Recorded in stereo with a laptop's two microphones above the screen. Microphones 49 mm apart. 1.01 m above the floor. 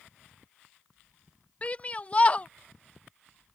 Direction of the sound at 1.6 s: 30° left (ahead or behind).